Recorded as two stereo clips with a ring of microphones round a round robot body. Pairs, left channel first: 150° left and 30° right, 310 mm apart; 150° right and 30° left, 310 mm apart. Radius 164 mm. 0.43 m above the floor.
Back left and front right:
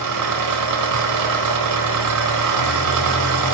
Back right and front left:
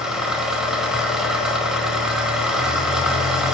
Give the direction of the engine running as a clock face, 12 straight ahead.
2 o'clock.